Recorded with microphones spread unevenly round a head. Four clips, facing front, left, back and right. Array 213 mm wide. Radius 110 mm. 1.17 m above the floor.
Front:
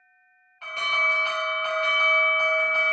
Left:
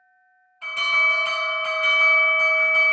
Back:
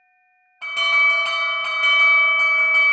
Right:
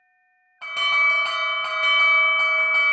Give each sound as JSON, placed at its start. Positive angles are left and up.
{"t": 0.6, "sound": "an alarm", "azimuth_deg": -140, "distance_m": 0.6}